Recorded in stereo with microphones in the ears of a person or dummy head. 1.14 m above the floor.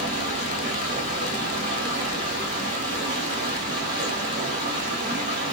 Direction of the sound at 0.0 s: 40° right (ahead or behind).